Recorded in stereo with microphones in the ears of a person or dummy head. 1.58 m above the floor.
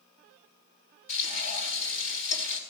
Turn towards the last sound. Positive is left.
turn(degrees=45)  # may be behind; listen again after turning